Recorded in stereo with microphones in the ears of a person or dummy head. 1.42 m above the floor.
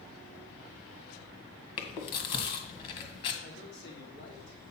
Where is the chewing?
35° left (ahead or behind), 1.6 m.